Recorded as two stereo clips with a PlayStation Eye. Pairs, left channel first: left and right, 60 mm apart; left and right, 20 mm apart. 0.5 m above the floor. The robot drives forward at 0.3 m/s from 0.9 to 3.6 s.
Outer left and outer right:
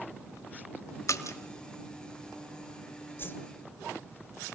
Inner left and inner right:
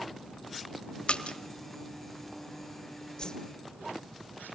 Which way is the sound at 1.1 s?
60° left (ahead or behind).